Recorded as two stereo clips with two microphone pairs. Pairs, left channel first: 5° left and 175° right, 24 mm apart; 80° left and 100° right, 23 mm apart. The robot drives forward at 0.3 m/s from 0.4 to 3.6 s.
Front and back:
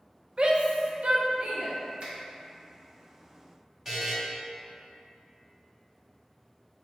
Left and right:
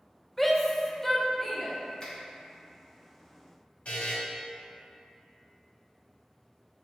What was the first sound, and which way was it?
A shout, 165° left.